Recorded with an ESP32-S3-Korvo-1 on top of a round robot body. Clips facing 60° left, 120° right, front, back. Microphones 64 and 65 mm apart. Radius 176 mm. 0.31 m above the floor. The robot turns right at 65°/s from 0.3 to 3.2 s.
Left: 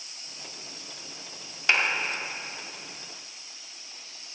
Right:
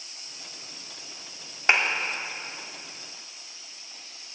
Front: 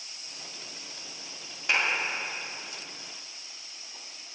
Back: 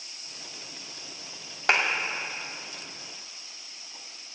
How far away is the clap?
About 3 m.